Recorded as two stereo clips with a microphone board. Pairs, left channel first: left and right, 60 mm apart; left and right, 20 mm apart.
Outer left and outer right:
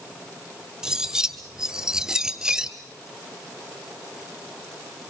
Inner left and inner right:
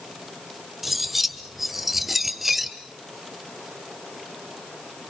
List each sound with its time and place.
0.8 s cutlery clinking: 10° right (ahead or behind), 1.7 m